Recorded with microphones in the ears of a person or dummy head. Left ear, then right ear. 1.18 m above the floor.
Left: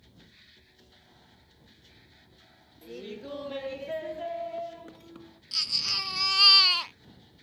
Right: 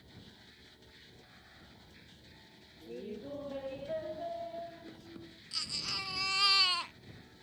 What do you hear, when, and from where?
2.8 s laughter: 40° left (ahead or behind); by 5.4 s 35° left (ahead or behind)
5.5 s a baby crying: 20° left (ahead or behind)